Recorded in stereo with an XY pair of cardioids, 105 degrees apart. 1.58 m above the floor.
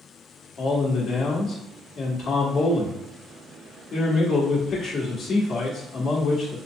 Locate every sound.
0.6 s a man speaking: 55° left, 1.9 m